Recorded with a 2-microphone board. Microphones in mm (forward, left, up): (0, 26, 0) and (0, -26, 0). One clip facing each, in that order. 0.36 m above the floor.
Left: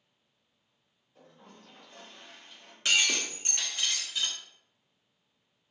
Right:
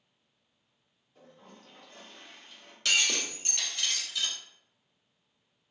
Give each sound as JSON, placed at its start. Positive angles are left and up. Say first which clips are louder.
{"t": 1.1, "sound": "a toilet flushing", "louder": "right 1 dB", "side_deg": 5, "distance_m": 1.6}
{"t": 2.9, "sound": "breaking glass", "louder": "left 1 dB", "side_deg": 25, "distance_m": 0.9}